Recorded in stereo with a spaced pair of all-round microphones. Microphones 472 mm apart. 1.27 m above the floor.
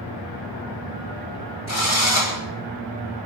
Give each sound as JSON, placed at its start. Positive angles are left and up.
{"t": 1.7, "sound": "a drill", "side_deg": 35, "distance_m": 7.5}